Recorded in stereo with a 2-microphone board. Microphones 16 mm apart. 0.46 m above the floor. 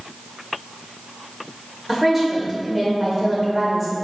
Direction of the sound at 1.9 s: 20° right (ahead or behind).